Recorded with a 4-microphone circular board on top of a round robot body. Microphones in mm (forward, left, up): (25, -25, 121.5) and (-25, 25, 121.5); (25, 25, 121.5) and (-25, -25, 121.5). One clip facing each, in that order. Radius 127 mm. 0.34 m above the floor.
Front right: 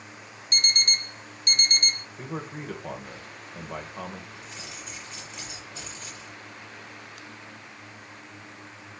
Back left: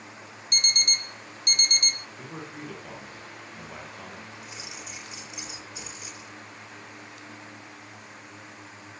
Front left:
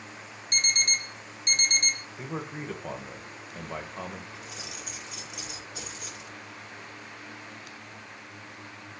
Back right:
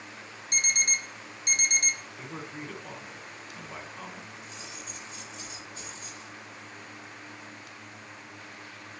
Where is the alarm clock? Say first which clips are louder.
Front right 2 dB, front left 1 dB; 55° right, 0.6 m.